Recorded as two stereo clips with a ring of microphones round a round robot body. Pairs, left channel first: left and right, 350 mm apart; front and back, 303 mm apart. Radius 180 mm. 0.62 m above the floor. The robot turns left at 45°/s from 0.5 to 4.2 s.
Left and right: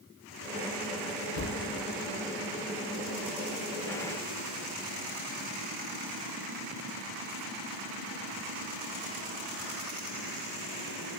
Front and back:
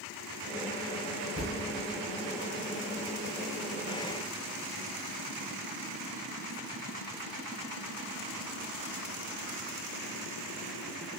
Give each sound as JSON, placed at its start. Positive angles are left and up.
{"t": 1.4, "sound": "a thud", "azimuth_deg": 55, "distance_m": 2.0}